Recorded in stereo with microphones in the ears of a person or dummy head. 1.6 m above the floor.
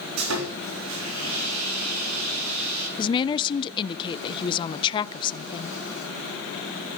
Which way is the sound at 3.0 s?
25° left (ahead or behind).